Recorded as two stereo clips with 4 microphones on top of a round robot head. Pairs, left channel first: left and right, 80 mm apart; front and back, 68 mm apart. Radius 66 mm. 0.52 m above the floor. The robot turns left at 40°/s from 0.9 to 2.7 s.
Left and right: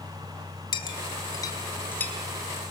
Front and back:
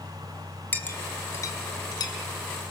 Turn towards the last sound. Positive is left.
turn(degrees=-5)